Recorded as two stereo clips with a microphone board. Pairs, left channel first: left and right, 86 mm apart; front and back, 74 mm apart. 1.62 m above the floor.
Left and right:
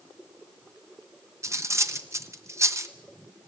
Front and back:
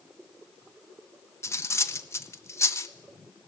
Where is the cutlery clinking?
40° right, 1.1 m.